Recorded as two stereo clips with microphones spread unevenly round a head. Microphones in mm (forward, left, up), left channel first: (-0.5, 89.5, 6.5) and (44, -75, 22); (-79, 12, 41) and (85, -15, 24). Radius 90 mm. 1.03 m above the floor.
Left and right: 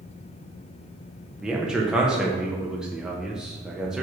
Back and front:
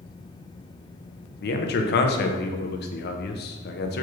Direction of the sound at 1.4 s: 165° right.